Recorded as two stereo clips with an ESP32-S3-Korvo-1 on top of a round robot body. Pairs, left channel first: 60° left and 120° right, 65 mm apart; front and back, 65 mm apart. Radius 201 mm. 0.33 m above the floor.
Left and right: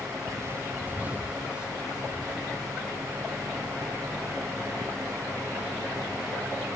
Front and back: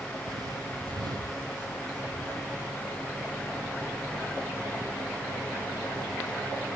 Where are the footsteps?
150° right, 0.5 m; by 6.7 s 155° left, 7 m.